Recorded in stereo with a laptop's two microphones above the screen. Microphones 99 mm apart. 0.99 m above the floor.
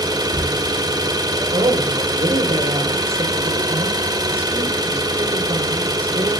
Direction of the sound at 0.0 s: 45° right (ahead or behind).